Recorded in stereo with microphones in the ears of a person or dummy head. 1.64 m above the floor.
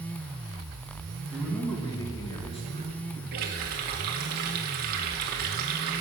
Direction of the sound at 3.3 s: 50° right (ahead or behind).